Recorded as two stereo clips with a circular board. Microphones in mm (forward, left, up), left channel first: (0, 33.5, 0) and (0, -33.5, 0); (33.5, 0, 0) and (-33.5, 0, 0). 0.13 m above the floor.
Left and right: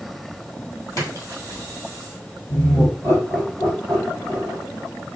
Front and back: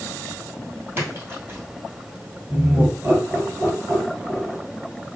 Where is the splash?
130° left, 1.7 m.